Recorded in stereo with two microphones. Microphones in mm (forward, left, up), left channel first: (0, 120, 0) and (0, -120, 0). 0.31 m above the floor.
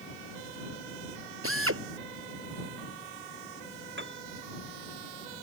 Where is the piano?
50° right (ahead or behind).